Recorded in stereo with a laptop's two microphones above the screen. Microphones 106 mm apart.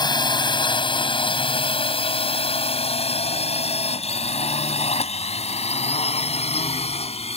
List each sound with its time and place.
0.0 s a drone: 45° left (ahead or behind); by 7.4 s 75° left (ahead or behind)